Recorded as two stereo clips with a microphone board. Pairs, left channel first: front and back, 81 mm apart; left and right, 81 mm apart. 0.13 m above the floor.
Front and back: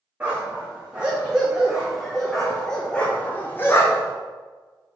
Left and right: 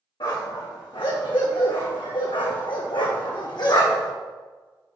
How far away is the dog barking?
About 3 m.